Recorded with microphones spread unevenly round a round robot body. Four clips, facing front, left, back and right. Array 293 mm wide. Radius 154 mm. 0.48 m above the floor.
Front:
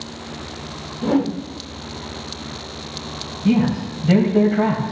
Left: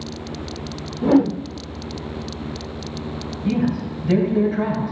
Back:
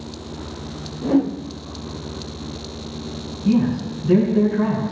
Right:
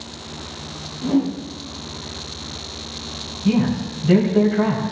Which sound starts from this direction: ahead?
A man speaking, at 3.5 s.